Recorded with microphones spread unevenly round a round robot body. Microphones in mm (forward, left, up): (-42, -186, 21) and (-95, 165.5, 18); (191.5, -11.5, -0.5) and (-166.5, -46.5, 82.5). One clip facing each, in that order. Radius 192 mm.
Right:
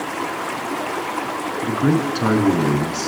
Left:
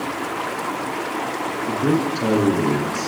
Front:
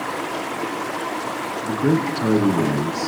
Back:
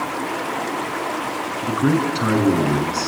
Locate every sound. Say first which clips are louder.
1.6 s a man speaking: right 1 dB, back 1 dB; 135° right, 5.5 m